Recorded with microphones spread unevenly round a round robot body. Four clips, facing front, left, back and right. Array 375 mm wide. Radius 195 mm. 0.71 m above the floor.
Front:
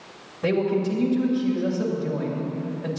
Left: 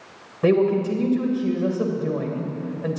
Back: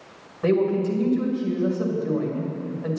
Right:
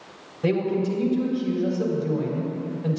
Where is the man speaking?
80° left, 3 m.